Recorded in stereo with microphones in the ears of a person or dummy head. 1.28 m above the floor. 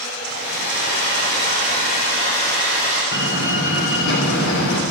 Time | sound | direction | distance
0.2 | a hair dryer | 50° left (ahead or behind) | 8 m
3.1 | a door slam | 65° left (ahead or behind) | 2.5 m